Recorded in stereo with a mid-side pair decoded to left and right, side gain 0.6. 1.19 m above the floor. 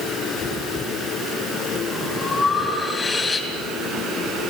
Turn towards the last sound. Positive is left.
turn(degrees=30)